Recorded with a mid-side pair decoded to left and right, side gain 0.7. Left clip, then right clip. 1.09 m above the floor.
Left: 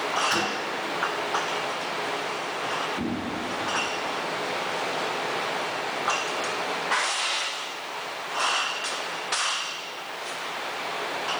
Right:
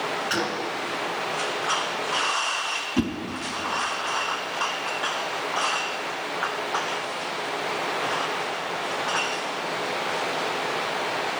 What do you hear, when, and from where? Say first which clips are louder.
0.3 s a gunshot: even; 5° right, 4.5 m
3.0 s a whoosh: right 4 dB; 65° right, 2.5 m